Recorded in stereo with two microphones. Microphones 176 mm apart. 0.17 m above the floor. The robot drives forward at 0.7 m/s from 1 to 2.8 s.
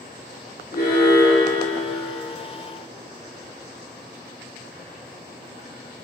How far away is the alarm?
About 2 m.